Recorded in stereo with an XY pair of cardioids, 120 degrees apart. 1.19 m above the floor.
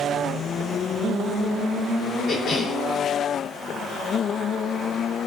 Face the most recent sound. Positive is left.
turn(degrees=50)